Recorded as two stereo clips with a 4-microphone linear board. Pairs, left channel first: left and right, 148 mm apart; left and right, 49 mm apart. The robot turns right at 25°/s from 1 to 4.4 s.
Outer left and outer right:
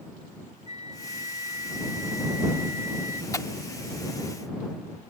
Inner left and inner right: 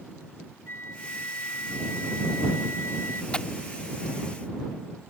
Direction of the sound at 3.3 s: 20° left (ahead or behind).